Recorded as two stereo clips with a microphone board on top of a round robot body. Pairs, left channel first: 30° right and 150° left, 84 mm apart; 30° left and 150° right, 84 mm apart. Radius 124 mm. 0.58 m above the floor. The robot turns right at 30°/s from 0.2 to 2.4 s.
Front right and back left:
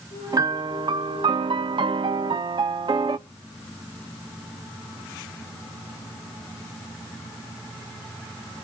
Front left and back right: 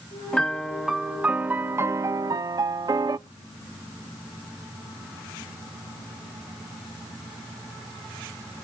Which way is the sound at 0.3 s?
105° left.